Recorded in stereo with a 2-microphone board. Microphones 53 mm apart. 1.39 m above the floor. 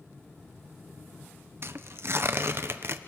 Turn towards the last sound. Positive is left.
turn(degrees=-50)  # may be behind; listen again after turning